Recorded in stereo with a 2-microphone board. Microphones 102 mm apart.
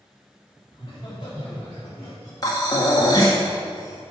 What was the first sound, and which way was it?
Laughter, 50° left (ahead or behind).